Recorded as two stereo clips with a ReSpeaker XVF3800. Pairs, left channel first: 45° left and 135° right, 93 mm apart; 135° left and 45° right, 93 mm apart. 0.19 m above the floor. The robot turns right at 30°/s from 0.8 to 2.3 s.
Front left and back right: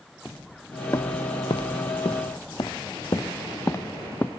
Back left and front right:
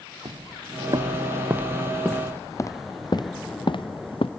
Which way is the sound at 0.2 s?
25° right.